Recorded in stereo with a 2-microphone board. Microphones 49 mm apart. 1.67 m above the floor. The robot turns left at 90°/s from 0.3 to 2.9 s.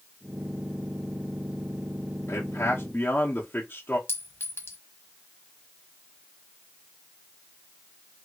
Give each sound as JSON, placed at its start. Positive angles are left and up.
{"t": 2.3, "sound": "a man speaking", "azimuth_deg": 105, "distance_m": 0.9}
{"t": 4.1, "sound": "a clink", "side_deg": 50, "distance_m": 1.5}